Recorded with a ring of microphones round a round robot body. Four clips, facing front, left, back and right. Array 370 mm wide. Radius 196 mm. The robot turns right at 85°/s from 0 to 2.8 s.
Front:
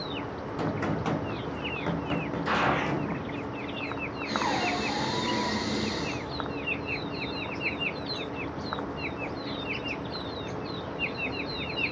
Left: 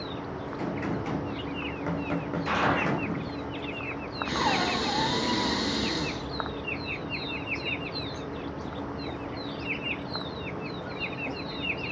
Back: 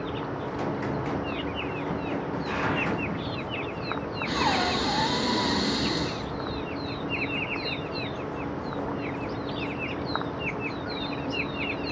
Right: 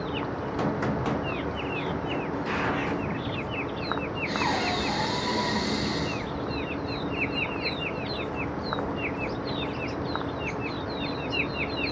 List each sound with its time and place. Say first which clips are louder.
0.6 s a gunshot: right 4 dB, front 2 dB; 90° right, 3 m; by 3.5 s 100° left, 3 m
2.5 s a gunshot: left 5 dB, front 3 dB; 30° left, 2 m; by 3.0 s 60° left, 2 m
4.2 s breathing: left 1 dB, back 3 dB; 140° left, 4.5 m